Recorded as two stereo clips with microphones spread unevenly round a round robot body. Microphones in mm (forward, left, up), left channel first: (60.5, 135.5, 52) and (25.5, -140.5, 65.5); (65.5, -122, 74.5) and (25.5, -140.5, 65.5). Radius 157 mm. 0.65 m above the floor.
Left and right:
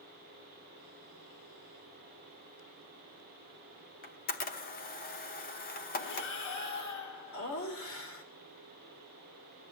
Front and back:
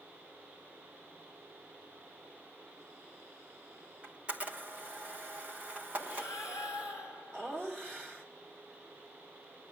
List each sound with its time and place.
4.0 s a camera shutter: 140° left, 1.1 m
6.0 s breathing: 70° left, 2.5 m
7.3 s laughter: 120° left, 2.5 m